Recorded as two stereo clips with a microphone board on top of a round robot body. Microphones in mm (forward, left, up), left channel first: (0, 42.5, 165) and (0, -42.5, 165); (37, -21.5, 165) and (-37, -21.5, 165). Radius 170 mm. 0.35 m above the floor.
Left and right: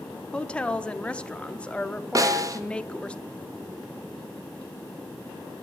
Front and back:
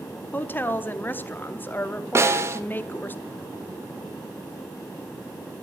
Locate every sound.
0.3 s a woman speaking: 25° left, 0.9 m
2.1 s a snare drum: 130° right, 1.0 m